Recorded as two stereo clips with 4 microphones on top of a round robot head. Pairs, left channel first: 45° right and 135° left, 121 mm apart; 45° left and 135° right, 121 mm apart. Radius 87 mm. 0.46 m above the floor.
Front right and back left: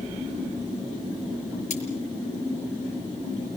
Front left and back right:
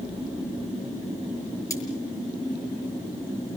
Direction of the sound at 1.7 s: 20° right.